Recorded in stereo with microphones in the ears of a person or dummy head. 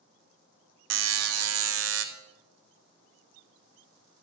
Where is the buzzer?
85° right, 0.9 m.